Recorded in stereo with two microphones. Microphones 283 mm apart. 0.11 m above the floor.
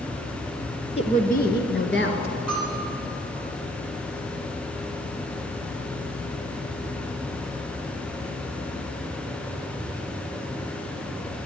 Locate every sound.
1.0 s a woman speaking: 20° left (ahead or behind), 1.2 m; by 2.3 s 45° left (ahead or behind), 1.5 m
2.5 s a bell: 60° left (ahead or behind), 3 m